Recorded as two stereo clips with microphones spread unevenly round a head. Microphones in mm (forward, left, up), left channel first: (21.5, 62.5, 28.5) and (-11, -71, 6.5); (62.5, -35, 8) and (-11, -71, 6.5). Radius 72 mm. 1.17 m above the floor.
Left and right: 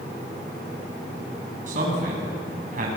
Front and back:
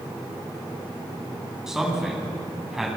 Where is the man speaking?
70° right, 9.5 m.